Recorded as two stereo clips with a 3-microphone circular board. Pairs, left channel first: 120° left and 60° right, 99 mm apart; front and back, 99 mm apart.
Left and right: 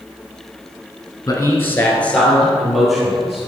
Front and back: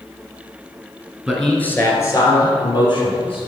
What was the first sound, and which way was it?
A man speaking, 95° left.